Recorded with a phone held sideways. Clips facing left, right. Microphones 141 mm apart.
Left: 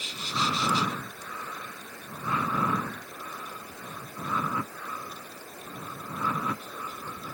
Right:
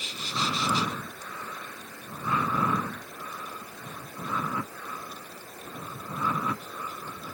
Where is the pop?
I don't hear a pop.